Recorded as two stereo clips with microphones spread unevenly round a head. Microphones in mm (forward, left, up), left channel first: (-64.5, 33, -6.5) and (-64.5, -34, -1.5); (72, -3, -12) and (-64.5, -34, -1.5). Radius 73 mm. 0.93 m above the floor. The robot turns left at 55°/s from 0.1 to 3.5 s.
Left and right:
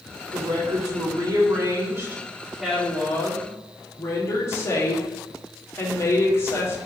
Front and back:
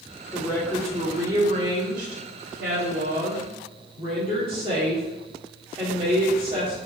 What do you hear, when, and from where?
0.3 s a woman speaking: 55° right, 1.8 m; by 6.8 s 130° left, 1.8 m